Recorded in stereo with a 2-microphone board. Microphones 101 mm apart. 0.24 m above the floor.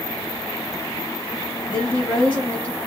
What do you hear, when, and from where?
1.7 s a woman speaking: 20° left (ahead or behind), 3.5 m